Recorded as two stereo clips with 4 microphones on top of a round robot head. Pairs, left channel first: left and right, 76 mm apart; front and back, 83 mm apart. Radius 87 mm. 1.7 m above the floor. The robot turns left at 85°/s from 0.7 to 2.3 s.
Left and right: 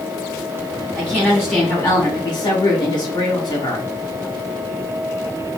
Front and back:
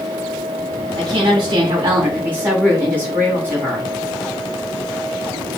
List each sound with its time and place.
0.9 s a woman speaking: 135° right, 3 m; by 3.9 s 115° left, 3 m